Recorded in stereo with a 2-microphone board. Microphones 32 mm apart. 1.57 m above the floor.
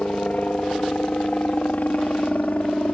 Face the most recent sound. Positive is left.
turn(degrees=55)  # may be behind; listen again after turning